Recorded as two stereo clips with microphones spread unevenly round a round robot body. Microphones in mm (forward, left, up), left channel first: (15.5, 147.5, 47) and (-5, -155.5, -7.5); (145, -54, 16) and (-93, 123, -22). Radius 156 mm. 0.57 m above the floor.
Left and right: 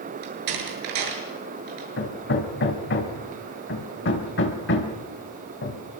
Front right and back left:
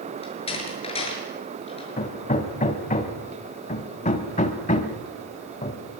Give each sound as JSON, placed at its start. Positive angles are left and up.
{"t": 0.2, "sound": "a door slam", "azimuth_deg": -110, "distance_m": 7.0}
{"t": 2.0, "sound": "hammering", "azimuth_deg": 30, "distance_m": 3.0}